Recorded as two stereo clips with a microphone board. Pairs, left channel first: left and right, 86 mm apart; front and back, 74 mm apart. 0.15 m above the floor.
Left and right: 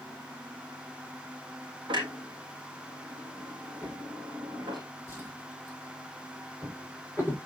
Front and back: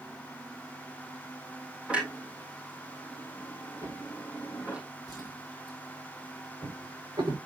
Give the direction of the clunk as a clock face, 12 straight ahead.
4 o'clock.